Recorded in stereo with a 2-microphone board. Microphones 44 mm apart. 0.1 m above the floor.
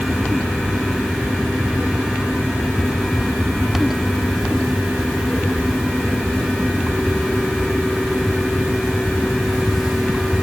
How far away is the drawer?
No drawer in this recording.